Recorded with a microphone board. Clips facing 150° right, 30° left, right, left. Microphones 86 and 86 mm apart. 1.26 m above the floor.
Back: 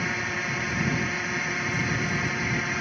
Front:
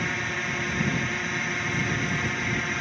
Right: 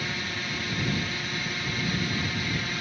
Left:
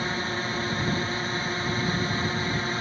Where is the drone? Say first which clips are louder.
Even, left 5 dB; 125° left.